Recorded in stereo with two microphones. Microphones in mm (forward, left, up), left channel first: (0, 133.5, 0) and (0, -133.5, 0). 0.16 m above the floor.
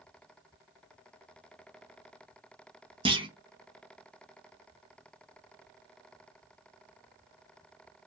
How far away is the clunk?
About 0.6 m.